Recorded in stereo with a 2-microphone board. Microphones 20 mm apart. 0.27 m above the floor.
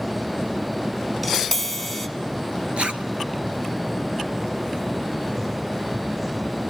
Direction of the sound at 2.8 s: 65° right (ahead or behind).